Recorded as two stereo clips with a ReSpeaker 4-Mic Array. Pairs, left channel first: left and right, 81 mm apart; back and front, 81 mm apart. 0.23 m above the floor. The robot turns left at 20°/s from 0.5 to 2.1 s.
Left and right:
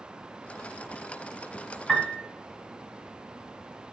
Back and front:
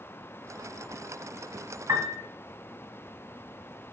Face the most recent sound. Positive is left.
turn(degrees=5)